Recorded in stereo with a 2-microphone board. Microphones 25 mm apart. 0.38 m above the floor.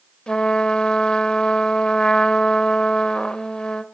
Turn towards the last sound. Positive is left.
turn(degrees=45)  # may be behind; listen again after turning